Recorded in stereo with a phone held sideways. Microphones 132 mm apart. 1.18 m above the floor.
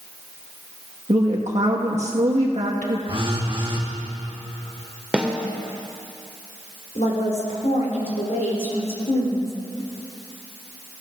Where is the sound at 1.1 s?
60° right (ahead or behind), 1.5 m.